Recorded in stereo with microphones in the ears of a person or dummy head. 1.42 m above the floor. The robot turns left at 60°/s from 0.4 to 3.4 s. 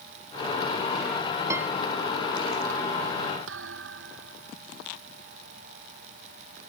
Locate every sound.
1.5 s a piano: 15° right (ahead or behind); by 1.7 s 5° right (ahead or behind)
3.5 s a thud: 80° right